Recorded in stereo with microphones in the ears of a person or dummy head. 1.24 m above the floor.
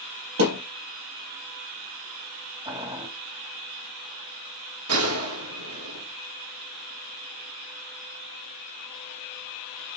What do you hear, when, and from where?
0.4 s a thud: 70° right (ahead or behind), 3 m
2.6 s boiling: 25° right (ahead or behind), 1.8 m
4.9 s a gunshot: 80° right, 1.8 m